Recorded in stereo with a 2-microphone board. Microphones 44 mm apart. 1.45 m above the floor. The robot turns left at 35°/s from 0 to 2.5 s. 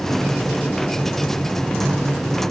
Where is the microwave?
I don't hear a microwave.